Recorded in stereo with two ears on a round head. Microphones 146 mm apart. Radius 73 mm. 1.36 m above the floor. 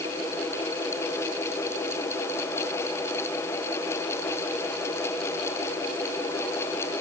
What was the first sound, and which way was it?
Only background noise.